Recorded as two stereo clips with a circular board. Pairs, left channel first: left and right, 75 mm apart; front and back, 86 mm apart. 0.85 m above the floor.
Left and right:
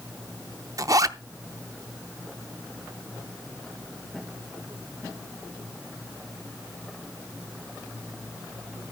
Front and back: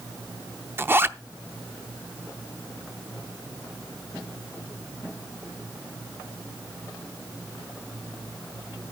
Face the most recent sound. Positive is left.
turn(degrees=-120)